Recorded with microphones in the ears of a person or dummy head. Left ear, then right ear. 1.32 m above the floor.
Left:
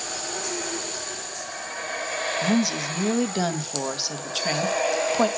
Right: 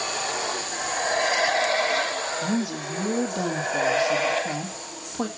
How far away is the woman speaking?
About 1.4 m.